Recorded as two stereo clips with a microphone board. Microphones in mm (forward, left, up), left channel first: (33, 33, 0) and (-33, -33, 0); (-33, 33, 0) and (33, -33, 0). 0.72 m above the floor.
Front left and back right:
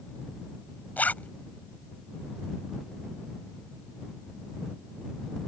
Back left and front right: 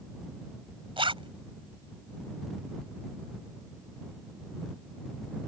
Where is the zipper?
30° right.